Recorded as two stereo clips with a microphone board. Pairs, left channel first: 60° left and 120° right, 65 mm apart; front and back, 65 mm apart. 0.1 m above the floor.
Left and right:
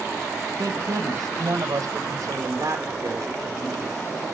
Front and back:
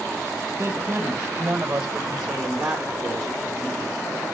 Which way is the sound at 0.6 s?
130° right.